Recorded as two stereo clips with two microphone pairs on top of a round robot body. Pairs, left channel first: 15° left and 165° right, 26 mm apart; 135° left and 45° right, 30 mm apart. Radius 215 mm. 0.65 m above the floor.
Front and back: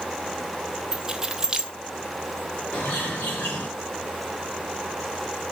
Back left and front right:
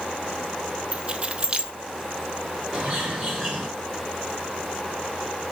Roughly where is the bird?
Ahead left.